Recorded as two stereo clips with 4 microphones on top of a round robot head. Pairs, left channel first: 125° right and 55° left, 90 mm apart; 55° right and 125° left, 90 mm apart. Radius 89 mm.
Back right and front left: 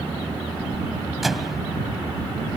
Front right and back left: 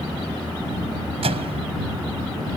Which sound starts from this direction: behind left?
A microwave, at 1.2 s.